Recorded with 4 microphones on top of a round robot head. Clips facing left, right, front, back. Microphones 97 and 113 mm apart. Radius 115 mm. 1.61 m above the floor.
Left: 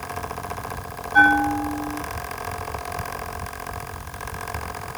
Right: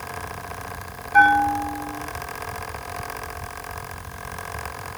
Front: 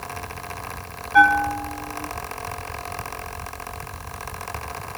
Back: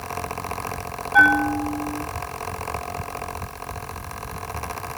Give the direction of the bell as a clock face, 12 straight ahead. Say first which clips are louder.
Right 1 dB, front 1 dB; 4 o'clock.